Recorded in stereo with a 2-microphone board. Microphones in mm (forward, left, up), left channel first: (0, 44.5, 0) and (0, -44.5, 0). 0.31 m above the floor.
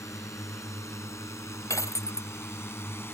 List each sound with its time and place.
0.0 s a drone: 40° left (ahead or behind); by 3.1 s 30° left (ahead or behind)
1.7 s breaking glass: 35° left (ahead or behind)